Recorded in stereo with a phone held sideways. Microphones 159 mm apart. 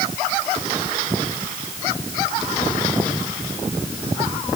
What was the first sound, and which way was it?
Only background noise.